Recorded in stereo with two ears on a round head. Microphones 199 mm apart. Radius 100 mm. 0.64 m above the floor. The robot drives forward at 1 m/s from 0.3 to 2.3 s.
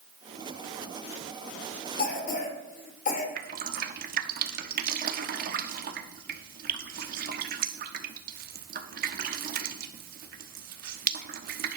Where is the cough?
40° left (ahead or behind), 2.5 m.